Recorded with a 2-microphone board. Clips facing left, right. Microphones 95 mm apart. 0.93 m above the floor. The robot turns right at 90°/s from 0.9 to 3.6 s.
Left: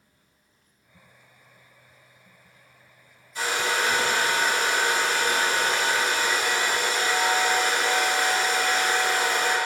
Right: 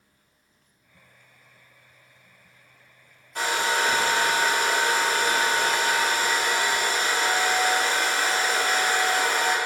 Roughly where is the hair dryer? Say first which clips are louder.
Right 1 dB; right.